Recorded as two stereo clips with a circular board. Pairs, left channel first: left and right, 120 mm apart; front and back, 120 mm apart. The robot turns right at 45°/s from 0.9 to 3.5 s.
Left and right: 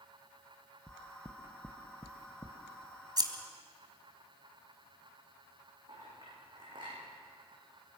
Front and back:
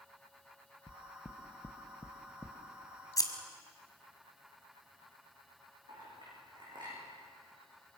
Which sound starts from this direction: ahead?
Knocking, at 0.9 s.